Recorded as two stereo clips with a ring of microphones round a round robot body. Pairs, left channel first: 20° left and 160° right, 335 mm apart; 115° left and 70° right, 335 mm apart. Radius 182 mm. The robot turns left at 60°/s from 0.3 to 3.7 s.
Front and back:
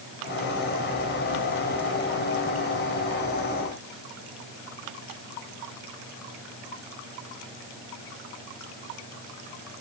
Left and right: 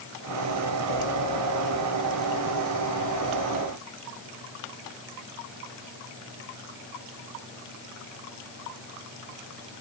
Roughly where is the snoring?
I don't hear snoring.